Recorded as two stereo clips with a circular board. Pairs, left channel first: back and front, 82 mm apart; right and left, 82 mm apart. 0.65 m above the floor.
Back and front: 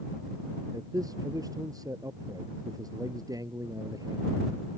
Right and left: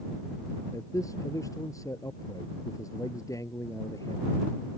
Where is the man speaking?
40° right.